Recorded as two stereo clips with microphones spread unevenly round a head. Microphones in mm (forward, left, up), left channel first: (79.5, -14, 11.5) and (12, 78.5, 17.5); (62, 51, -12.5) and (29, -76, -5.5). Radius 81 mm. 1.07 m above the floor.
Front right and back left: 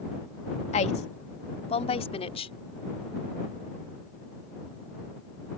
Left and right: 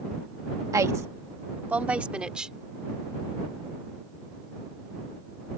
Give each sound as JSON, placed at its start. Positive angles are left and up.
{"t": 0.7, "sound": "a woman speaking", "azimuth_deg": -40}